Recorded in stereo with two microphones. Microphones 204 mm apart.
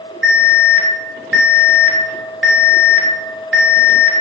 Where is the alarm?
35° right (ahead or behind), 1.1 m.